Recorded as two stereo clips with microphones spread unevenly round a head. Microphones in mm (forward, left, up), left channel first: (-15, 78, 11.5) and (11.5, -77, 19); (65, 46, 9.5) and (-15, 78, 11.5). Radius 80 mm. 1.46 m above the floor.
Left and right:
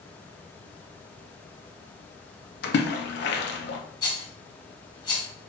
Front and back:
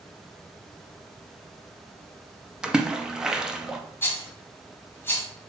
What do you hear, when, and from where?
2.6 s a splash: 75° left, 0.6 m
4.0 s a rattle: 40° left, 1.2 m